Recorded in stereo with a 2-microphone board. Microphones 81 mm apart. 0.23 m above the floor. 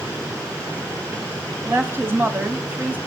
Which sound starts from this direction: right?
A woman speaking, at 1.6 s.